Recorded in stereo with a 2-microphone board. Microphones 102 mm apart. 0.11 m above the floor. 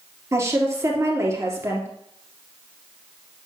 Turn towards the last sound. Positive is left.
turn(degrees=-30)  # may be behind; listen again after turning